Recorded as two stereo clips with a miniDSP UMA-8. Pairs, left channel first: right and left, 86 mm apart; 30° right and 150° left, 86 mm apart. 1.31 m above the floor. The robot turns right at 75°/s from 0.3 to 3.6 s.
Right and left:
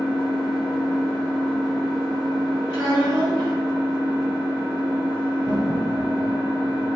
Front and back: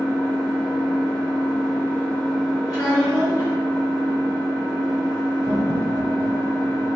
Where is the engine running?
90° right, 1.1 m; by 7.0 s 160° left, 1.1 m.